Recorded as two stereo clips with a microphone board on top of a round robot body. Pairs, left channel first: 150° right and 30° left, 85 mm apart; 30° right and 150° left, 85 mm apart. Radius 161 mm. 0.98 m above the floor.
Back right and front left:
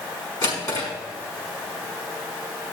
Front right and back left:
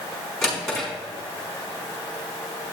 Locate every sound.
0.4 s a drawer: 115° right, 4.5 m